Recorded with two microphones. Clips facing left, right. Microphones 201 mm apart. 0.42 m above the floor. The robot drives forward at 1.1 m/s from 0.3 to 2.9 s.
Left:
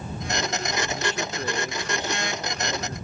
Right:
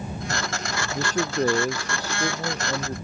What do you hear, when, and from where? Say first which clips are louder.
0.9 s a man speaking: right 5 dB; 40° right (ahead or behind); by 3.0 s 35° right (ahead or behind)